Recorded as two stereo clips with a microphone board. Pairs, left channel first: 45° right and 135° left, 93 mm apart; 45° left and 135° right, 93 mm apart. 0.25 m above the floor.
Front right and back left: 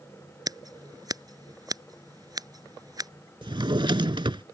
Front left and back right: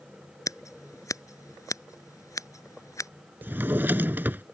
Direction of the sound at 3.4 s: 160° left.